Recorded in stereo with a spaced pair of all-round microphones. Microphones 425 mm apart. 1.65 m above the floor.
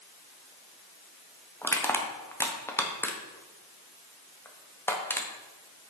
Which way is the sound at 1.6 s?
5° left (ahead or behind).